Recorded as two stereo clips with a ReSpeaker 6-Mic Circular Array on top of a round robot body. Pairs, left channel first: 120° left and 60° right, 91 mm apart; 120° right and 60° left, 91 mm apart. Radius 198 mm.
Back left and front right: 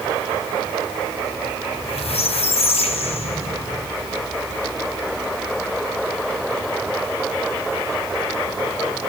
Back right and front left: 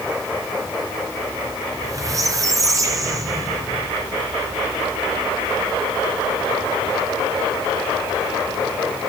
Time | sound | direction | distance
1.7 | a squeak | 115° left | 1.5 m